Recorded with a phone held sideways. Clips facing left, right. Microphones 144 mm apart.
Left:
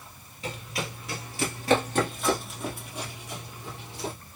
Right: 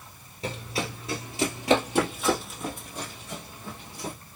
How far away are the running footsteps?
About 1.9 m.